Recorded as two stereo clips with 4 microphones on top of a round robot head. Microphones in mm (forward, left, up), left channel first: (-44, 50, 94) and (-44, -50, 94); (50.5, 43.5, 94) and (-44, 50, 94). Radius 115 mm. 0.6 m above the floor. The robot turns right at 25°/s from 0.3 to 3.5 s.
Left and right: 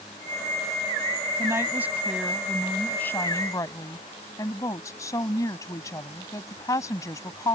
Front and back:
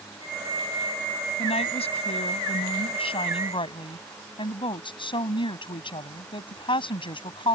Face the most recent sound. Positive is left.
turn(degrees=30)